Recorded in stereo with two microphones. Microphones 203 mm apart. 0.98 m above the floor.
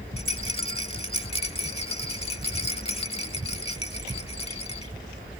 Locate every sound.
0.2 s a rattle: 30° left (ahead or behind)